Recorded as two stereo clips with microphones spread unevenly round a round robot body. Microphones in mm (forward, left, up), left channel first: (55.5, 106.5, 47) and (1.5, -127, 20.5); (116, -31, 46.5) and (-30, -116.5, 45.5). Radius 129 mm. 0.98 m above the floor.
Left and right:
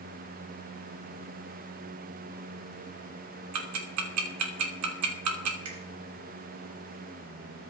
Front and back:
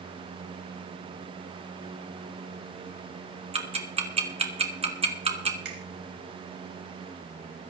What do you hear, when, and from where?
3.5 s ticking: 95° right, 3 m
5.7 s a finger snap: 135° right, 4 m